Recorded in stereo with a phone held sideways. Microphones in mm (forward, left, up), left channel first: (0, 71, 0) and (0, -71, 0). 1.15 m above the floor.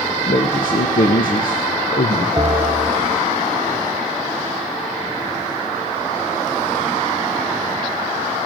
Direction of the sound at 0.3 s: 75° left (ahead or behind).